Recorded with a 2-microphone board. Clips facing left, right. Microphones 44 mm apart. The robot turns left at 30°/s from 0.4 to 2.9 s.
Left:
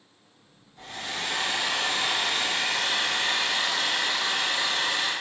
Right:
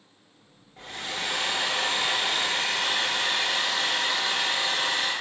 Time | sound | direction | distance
0.8 | a hair dryer | 105° right | 1.0 m